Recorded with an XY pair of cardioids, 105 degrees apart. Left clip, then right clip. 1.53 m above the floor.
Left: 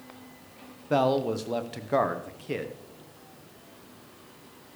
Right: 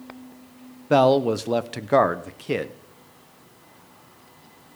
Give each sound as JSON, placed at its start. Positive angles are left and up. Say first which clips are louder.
{"t": 0.9, "sound": "a man speaking", "louder": "right 7 dB", "azimuth_deg": -45, "distance_m": 0.7}